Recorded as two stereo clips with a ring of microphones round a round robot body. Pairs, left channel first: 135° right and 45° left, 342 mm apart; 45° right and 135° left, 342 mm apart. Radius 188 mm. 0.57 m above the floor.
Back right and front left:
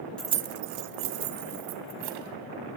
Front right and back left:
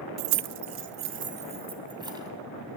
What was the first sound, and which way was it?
Keys jangling, 140° left.